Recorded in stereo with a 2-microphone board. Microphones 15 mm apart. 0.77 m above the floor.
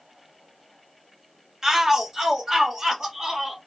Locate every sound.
1.6 s a shout: 30° right (ahead or behind), 0.7 m; by 3.6 s 35° right (ahead or behind), 1.2 m